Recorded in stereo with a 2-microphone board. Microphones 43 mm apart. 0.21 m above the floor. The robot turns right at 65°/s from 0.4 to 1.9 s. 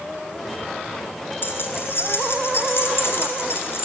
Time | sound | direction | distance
1.4 | keys jangling | 70° left | 2.5 m